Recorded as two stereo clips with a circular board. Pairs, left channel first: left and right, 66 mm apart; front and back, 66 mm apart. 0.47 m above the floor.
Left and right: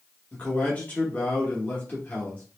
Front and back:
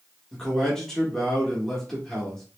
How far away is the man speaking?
About 1.0 m.